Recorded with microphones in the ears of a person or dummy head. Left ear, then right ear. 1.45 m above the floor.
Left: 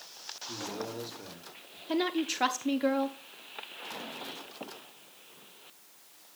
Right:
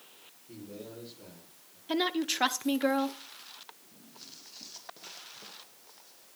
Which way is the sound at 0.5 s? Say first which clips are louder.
Left 7 dB; 75° left (ahead or behind).